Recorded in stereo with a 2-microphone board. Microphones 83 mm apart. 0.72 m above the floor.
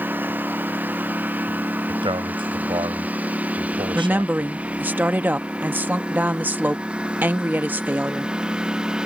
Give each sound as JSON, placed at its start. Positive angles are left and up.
{"t": 0.0, "sound": "a lawn mower", "side_deg": -20}
{"t": 1.9, "sound": "a man speaking", "side_deg": -75}
{"t": 4.0, "sound": "a woman speaking", "side_deg": -20}